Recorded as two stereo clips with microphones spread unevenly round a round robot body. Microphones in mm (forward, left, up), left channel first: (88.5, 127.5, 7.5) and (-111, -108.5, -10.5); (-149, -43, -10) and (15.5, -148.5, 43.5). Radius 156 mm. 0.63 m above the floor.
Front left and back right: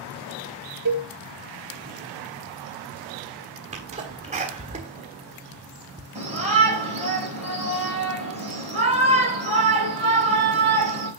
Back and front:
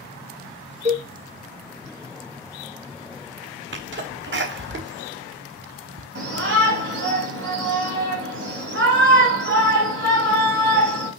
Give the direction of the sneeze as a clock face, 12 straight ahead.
2 o'clock.